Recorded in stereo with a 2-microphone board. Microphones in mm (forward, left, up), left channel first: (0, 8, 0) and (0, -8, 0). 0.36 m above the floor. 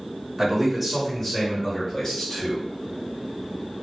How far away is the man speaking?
About 1.3 m.